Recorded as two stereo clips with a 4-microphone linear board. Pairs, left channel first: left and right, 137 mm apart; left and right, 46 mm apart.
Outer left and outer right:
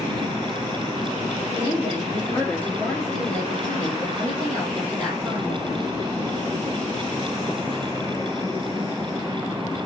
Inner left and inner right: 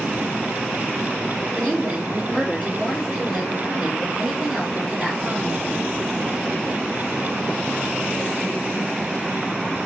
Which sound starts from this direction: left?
A woman speaking, at 1.6 s.